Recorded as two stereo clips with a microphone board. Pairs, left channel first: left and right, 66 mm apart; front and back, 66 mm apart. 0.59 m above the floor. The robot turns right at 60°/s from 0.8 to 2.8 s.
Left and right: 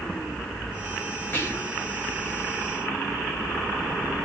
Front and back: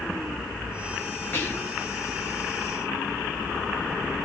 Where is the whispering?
45° left, 1.9 m; by 1.8 s 70° left, 1.9 m.